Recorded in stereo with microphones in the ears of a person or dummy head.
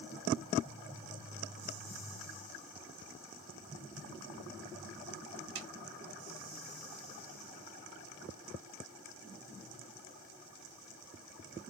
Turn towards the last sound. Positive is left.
turn(degrees=-80)